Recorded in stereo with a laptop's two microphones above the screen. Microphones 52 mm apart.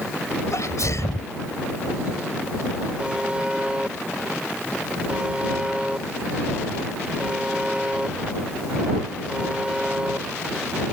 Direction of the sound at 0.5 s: 70° left (ahead or behind).